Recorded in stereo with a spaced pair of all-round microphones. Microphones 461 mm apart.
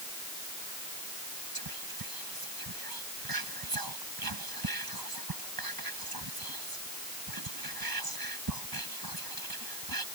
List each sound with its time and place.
1.6 s whispering: 50° right (ahead or behind)